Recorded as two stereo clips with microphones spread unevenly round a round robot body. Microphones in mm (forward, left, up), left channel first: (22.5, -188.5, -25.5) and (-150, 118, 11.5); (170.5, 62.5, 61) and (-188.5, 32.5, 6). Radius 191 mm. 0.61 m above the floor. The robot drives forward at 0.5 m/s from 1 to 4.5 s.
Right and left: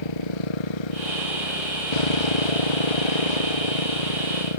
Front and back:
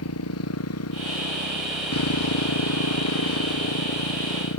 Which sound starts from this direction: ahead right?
A motorcycle, at 0.0 s.